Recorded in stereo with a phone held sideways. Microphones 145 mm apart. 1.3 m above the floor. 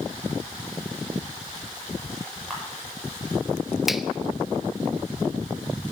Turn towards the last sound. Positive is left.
turn(degrees=0)  # may be behind; listen again after turning